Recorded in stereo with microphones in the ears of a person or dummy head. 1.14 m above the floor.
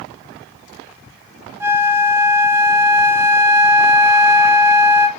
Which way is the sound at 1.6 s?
10° right (ahead or behind).